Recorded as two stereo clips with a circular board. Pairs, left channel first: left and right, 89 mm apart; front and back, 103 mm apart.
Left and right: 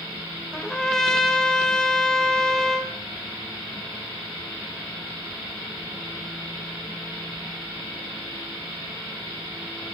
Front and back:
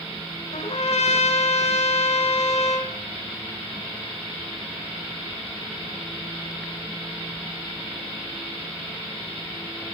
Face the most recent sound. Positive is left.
turn(degrees=5)